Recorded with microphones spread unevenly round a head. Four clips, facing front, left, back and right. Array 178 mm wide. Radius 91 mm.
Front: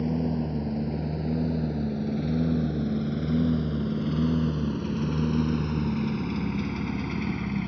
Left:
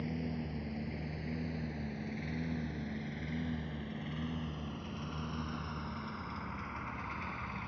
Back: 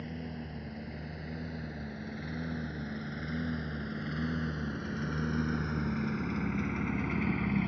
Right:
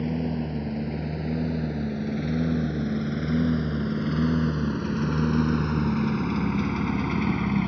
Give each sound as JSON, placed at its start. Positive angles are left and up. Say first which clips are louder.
{"t": 0.0, "sound": "a lawn mower", "louder": "right 11 dB, front 14 dB", "azimuth_deg": -40}